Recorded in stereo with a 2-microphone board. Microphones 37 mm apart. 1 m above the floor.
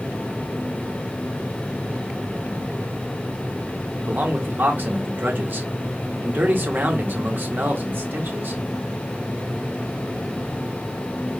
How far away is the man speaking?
About 1.4 m.